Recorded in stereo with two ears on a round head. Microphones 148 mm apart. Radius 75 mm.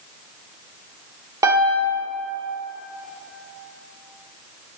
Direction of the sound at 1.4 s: 20° right (ahead or behind).